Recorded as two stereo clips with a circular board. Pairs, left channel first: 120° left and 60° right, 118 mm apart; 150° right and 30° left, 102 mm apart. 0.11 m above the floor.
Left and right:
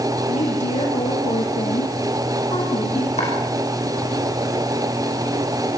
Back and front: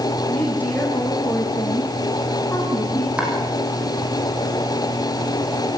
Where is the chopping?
110° left, 6 m.